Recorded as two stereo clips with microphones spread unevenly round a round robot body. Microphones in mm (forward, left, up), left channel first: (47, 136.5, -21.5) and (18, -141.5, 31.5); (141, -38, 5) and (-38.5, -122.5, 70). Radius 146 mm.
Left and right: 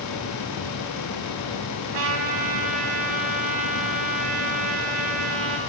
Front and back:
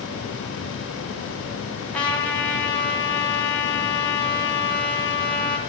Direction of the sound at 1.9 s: 50° right.